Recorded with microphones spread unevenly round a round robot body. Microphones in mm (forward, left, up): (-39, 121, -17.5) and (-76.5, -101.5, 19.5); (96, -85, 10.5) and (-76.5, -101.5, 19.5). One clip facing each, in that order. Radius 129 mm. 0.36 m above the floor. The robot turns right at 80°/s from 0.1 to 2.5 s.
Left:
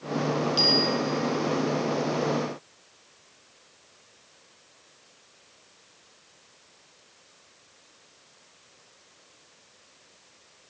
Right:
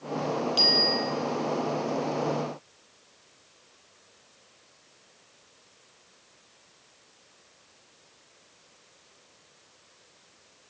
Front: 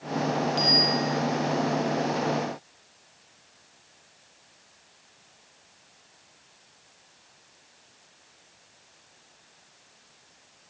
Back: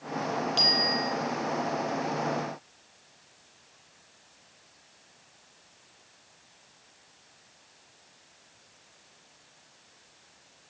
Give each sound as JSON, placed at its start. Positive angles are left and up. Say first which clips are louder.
{"t": 0.6, "sound": "a bicycle bell", "louder": "left 3 dB, front 4 dB", "azimuth_deg": -160, "distance_m": 8.0}